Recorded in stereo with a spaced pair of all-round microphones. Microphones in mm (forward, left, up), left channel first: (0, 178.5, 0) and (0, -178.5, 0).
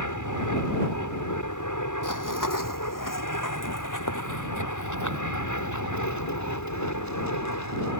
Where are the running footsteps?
60° left (ahead or behind); by 7.9 s 50° left (ahead or behind).